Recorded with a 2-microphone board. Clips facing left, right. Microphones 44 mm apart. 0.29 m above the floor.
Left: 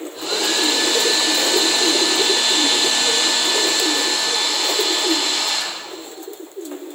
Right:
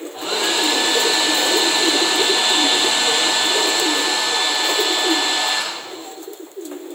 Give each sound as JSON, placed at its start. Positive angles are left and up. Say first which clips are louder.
{"t": 0.1, "sound": "a hair dryer", "louder": "right 1 dB", "side_deg": -35, "distance_m": 5.0}